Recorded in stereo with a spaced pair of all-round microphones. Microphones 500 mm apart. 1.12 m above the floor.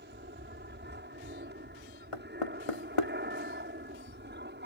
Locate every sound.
0.0 s an aircraft: 20° right (ahead or behind)
2.1 s knocking: 85° left